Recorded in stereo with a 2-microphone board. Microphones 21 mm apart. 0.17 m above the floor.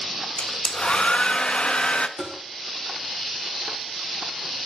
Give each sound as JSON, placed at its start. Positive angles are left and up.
{"t": 0.4, "sound": "a hair dryer", "side_deg": 50, "distance_m": 0.5}
{"t": 2.2, "sound": "tapping", "side_deg": -20, "distance_m": 3.0}